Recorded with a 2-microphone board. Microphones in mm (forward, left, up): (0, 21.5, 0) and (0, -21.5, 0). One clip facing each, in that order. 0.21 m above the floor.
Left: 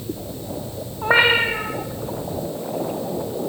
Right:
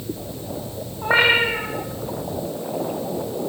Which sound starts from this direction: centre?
A cat meowing, at 1.0 s.